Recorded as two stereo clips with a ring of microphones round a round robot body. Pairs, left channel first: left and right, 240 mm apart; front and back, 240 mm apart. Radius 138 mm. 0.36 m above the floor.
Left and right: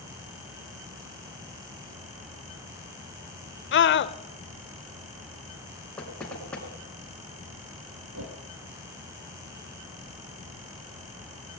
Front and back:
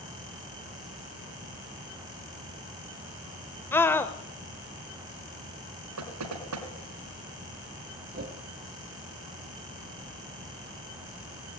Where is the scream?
80° left, 1.2 m.